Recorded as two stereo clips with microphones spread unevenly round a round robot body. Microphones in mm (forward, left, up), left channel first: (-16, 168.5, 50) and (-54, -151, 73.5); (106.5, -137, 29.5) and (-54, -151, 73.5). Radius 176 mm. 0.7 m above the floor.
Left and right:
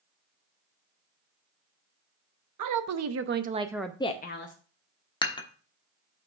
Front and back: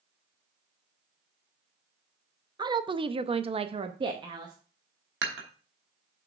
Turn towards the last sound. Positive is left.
turn(degrees=160)